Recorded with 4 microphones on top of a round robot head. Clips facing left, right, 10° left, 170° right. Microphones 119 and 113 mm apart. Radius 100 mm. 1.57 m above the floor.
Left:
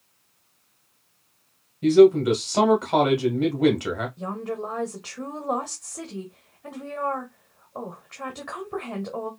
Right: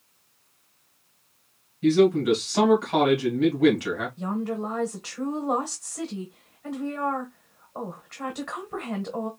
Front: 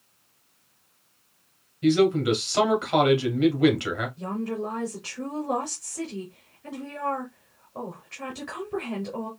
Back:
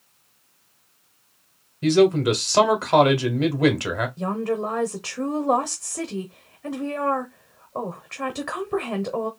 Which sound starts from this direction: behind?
A woman speaking, at 4.2 s.